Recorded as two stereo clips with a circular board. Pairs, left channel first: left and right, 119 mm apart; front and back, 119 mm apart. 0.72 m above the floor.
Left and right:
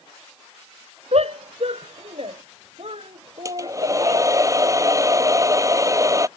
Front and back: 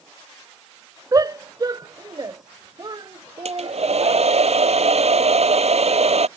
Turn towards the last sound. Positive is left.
turn(degrees=-150)